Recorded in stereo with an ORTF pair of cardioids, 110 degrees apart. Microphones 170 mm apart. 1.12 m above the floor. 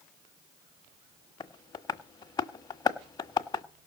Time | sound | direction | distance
1.4 | tapping | 25° left | 1.3 m